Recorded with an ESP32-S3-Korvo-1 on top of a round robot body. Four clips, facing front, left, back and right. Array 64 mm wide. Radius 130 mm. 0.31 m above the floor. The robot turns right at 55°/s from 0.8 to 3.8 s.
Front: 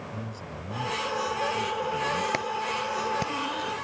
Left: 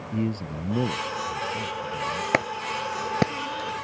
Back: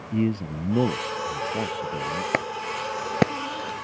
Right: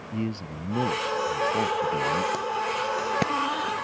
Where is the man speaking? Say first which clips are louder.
Left 3 dB, back 12 dB; straight behind; by 2.2 s 105° right.